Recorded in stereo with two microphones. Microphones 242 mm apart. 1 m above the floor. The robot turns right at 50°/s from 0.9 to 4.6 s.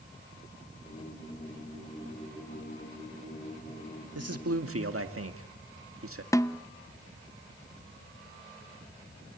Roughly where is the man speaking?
Right.